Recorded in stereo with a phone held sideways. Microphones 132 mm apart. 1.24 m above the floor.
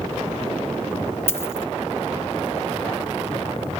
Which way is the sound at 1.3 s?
20° left (ahead or behind).